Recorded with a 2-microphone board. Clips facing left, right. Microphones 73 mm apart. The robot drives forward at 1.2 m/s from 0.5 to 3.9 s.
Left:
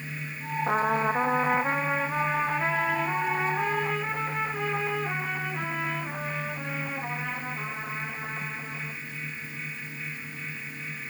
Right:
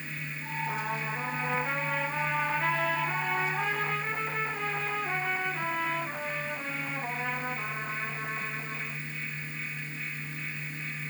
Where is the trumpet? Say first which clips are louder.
Left 10 dB; 70° left (ahead or behind), 0.8 m; by 9.0 s 10° left (ahead or behind), 3.5 m.